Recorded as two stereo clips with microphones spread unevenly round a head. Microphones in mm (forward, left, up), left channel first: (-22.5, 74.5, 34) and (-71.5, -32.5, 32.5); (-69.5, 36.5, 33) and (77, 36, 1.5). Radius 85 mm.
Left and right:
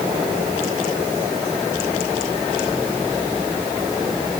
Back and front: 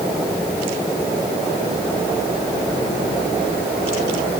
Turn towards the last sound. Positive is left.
No sound to turn to.